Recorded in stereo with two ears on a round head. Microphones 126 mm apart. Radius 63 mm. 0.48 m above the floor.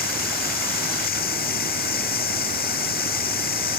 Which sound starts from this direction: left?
Running water, at 0.0 s.